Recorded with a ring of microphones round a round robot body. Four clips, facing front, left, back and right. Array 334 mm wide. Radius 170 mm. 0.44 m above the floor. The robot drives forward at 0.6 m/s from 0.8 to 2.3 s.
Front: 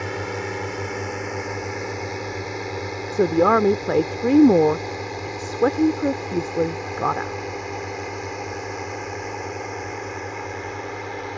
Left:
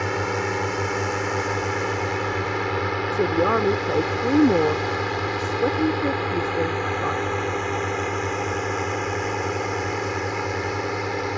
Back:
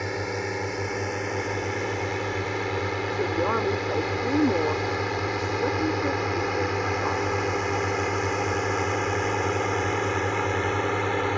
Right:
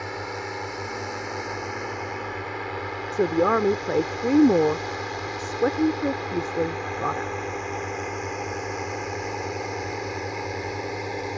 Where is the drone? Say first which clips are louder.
Left 7 dB, front 1 dB; 85° left; by 11.4 s 145° left.